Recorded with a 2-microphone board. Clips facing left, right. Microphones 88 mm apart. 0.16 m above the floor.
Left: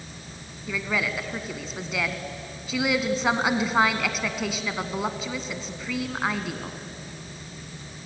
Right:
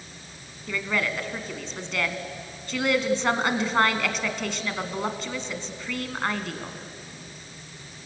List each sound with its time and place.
0.7 s a woman speaking: 5° left (ahead or behind), 1.4 m